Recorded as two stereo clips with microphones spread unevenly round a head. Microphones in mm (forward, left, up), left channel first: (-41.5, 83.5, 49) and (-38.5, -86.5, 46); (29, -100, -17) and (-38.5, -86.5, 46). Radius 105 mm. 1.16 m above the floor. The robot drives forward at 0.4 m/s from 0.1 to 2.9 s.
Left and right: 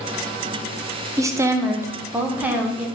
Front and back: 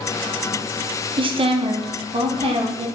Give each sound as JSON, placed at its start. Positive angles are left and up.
{"t": 1.2, "sound": "a woman speaking", "azimuth_deg": -140, "distance_m": 0.5}